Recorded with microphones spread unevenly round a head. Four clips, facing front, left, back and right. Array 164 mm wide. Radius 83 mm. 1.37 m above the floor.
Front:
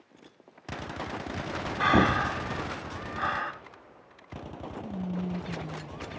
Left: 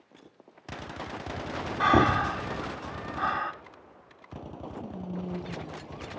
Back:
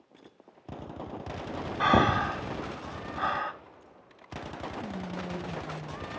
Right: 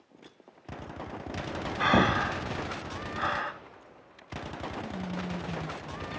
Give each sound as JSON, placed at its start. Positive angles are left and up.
{"t": 1.8, "sound": "breathing", "azimuth_deg": 180, "distance_m": 1.3}
{"t": 4.8, "sound": "whispering", "azimuth_deg": 175, "distance_m": 6.5}